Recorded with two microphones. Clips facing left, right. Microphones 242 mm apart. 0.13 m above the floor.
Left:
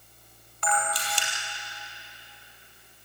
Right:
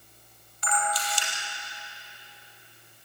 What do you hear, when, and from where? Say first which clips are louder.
0.6 s a camera shutter: left 1 dB; 65° left (ahead or behind), 4 m